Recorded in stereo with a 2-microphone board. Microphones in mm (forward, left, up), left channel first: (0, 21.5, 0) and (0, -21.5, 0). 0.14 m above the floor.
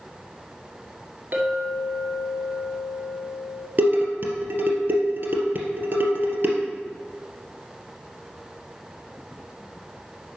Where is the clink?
50° right (ahead or behind), 1.7 m.